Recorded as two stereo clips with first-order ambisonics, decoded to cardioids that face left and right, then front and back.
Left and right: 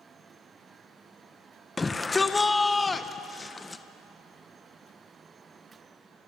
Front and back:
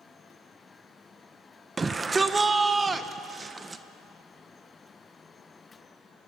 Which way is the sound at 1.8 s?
140° left.